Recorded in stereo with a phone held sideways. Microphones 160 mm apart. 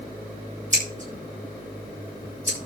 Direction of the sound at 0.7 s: 50° right (ahead or behind).